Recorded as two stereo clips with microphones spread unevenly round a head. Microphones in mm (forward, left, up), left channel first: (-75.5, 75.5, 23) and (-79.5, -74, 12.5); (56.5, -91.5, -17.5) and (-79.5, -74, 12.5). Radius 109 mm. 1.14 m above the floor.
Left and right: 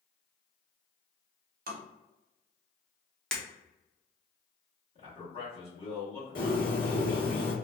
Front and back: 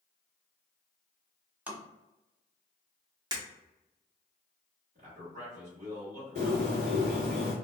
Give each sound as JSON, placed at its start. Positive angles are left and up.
{"t": 1.7, "sound": "tapping", "azimuth_deg": -105, "distance_m": 0.8}
{"t": 3.3, "sound": "breaking glass", "azimuth_deg": 165, "distance_m": 0.8}
{"t": 5.0, "sound": "a man speaking", "azimuth_deg": 135, "distance_m": 1.4}
{"t": 6.3, "sound": "a bird", "azimuth_deg": 110, "distance_m": 1.4}